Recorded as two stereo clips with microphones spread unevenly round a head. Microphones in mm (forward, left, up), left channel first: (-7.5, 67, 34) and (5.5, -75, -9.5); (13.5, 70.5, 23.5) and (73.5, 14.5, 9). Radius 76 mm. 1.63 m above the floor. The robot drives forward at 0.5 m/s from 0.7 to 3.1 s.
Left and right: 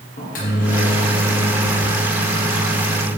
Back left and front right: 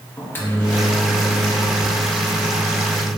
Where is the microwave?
75° left, 1.8 m; by 3.1 s 115° left, 1.9 m.